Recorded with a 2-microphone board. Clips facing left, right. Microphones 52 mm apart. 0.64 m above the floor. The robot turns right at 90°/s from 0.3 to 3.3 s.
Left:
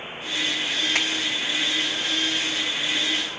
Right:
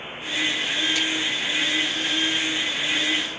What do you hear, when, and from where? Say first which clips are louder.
0.9 s a finger snap: left 1 dB; 80° left, 3 m; by 1.1 s 70° left (ahead or behind), 3 m